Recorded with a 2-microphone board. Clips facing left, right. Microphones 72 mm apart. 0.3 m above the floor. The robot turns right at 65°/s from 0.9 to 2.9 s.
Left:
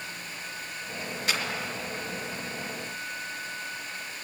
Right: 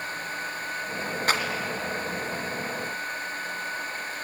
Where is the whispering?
No whispering in this recording.